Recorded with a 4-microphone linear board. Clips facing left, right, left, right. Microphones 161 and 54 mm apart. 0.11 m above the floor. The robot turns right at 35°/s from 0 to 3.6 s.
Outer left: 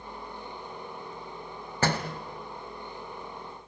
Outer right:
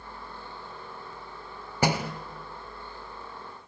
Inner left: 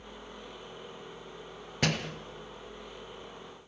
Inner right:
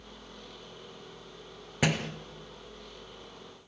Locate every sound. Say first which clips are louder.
1.8 s a door slam: outer right 2 dB, inner right 2 dB; 10° right (ahead or behind), 1.5 m; by 2.1 s 5° right (ahead or behind), 1.5 m